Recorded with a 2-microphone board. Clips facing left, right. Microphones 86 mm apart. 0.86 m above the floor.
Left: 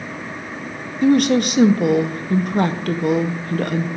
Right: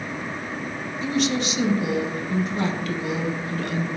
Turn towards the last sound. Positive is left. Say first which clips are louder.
# left 9 dB
turn(degrees=55)  # may be behind; listen again after turning